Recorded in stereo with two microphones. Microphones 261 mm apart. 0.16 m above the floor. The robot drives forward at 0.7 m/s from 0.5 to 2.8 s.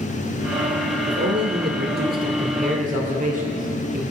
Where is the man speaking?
45° right (ahead or behind), 2 m; by 4.0 s 30° right (ahead or behind), 3 m.